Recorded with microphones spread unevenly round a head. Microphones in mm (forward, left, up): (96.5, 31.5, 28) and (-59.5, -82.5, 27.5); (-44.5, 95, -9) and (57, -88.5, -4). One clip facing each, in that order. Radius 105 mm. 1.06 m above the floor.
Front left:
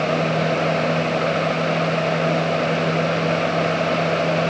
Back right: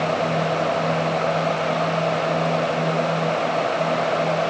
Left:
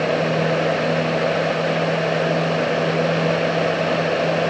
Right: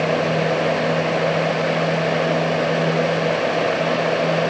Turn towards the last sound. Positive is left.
No sound to turn to.